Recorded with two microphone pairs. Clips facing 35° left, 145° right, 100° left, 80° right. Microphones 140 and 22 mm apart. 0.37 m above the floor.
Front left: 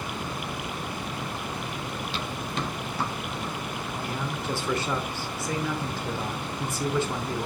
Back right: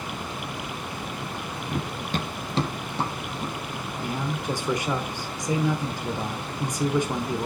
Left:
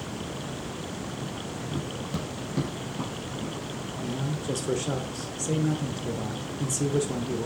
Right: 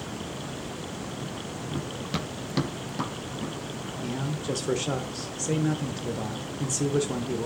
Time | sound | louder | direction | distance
1.7 | running footsteps | back right 4 dB, right 2 dB | 160° right | 0.6 m
4.0 | a man speaking | back right 4 dB, even | 105° right | 1.1 m